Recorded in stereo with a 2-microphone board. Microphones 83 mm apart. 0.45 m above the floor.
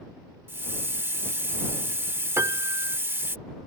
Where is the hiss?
30° right (ahead or behind).